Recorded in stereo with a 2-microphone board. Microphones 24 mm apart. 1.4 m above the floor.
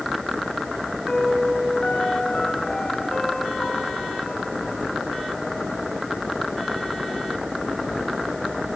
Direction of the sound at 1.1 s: 55° left (ahead or behind).